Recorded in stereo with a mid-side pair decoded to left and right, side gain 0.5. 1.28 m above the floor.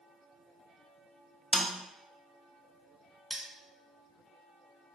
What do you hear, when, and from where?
1.5 s a snare drum: 5° left, 0.6 m
3.3 s cutlery clinking: 10° right, 1.3 m